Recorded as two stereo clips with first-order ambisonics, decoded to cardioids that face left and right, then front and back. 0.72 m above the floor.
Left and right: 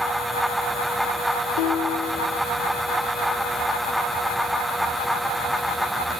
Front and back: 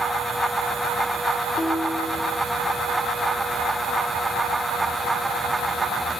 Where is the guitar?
75° left, 1.0 m.